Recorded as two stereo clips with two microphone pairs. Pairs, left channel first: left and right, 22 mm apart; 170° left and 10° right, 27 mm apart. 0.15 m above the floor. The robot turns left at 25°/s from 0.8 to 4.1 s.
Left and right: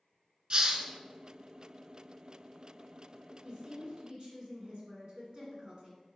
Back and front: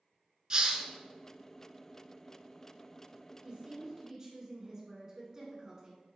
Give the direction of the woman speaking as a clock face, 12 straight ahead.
2 o'clock.